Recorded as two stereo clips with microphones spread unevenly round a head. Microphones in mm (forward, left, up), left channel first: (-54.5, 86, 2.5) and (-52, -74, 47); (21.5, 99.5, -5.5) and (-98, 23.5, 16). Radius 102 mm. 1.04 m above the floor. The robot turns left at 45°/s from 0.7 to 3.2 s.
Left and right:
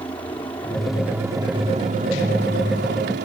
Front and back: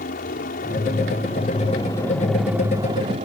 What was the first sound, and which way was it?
A helicopter, 20° left.